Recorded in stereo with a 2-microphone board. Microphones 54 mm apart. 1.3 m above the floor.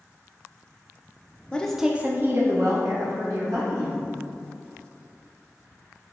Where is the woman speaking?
20° left (ahead or behind), 0.5 m; by 4.0 s 75° right (ahead or behind), 1.8 m.